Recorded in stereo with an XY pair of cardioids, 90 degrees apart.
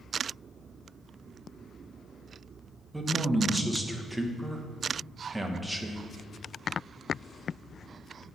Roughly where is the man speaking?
Ahead.